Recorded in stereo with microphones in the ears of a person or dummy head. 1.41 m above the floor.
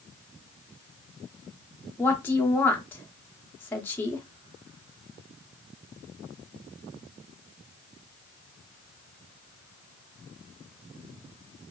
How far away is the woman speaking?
About 0.6 m.